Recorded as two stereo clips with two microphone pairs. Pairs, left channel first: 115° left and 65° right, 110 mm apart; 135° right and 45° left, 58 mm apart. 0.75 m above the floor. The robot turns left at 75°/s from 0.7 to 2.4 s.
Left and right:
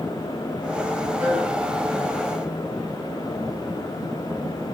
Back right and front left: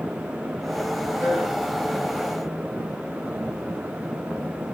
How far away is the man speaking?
About 5.5 m.